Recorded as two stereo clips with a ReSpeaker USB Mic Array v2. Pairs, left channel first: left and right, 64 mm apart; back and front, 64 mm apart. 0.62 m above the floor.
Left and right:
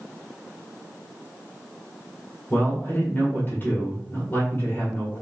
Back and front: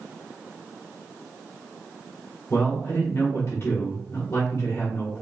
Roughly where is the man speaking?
Behind left.